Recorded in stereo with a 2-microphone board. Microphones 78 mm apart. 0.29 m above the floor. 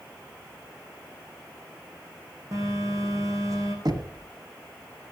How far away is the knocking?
About 1.6 m.